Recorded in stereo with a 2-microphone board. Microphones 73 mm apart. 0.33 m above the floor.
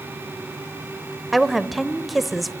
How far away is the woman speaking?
About 1.0 m.